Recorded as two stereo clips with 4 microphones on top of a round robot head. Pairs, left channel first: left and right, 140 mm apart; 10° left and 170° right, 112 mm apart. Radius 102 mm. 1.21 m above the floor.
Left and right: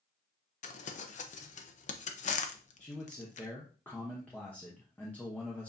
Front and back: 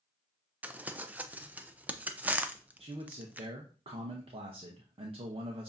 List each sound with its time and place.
0.6 s crumpling: 115° left, 0.7 m
2.8 s a man speaking: 170° left, 0.9 m